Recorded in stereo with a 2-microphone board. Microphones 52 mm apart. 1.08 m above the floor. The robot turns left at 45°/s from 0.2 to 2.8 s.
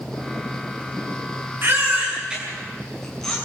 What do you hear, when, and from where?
1.6 s a baby crying: 45° right (ahead or behind), 8 m; by 3.4 s 5° left (ahead or behind), 8 m